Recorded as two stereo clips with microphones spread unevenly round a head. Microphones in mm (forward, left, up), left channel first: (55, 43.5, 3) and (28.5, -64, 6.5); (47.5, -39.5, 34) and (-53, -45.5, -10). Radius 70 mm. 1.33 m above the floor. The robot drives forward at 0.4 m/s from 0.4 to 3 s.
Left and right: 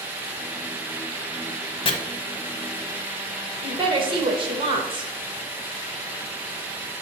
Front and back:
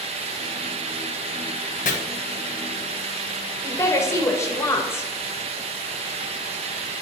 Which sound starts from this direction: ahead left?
Chopping, at 1.9 s.